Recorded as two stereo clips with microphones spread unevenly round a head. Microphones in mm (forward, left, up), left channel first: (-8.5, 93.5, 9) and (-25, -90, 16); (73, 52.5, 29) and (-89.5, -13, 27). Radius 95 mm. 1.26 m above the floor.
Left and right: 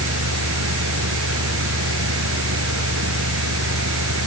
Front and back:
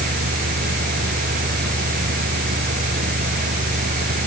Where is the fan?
110° right.